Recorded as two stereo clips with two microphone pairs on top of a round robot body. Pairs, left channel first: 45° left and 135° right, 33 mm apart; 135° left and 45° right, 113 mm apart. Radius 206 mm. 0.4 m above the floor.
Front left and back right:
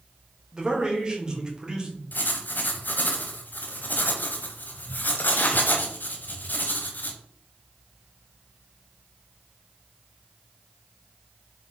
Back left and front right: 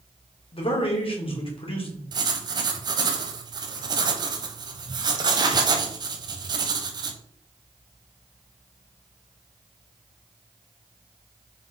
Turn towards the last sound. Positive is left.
turn(degrees=5)